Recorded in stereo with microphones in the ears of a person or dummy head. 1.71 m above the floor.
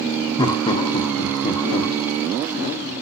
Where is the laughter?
20° left (ahead or behind), 0.6 m.